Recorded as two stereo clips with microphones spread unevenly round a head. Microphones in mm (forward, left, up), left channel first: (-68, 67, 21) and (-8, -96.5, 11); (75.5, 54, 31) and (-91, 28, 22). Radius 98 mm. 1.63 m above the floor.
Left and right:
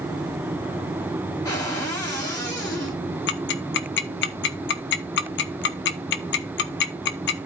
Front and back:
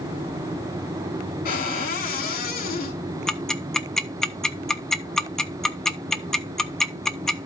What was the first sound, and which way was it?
A cupboard door, 40° left.